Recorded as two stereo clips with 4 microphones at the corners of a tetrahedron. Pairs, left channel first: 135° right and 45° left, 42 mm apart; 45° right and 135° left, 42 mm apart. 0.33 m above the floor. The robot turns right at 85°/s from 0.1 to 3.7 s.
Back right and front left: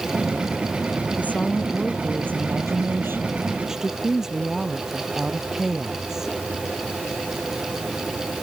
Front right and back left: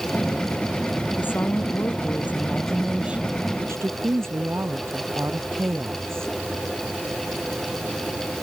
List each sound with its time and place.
1.2 s a woman speaking: 90° right; by 6.3 s 125° left